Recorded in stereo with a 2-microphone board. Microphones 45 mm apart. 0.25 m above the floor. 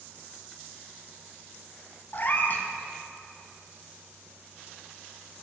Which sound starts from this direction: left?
A cat meowing, at 2.1 s.